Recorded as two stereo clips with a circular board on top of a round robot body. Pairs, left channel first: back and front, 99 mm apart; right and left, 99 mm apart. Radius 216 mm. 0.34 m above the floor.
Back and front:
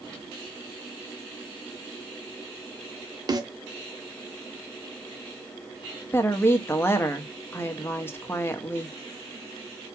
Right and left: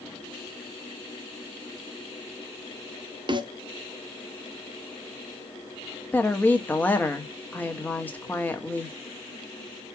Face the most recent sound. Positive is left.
turn(degrees=-145)